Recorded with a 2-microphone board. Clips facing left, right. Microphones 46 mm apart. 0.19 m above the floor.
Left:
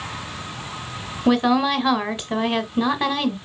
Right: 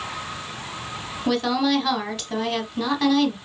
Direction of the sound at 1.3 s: 20° left (ahead or behind).